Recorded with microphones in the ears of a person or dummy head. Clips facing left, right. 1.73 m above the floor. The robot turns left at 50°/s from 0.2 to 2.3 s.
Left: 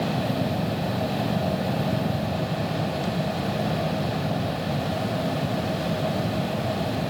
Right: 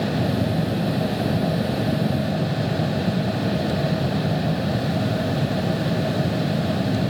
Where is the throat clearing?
I don't hear throat clearing.